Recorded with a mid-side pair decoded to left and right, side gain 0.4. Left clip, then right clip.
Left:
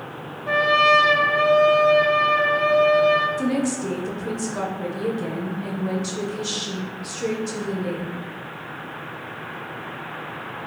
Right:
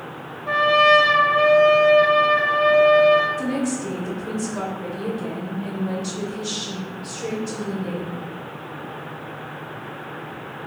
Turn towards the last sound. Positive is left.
turn(degrees=30)